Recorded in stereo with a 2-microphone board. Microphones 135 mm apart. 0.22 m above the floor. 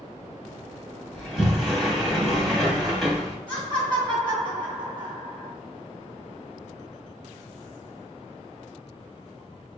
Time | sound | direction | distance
1.1 | a sliding door | centre (ahead or behind) | 1.7 m
3.5 | laughter | 40° right (ahead or behind) | 2 m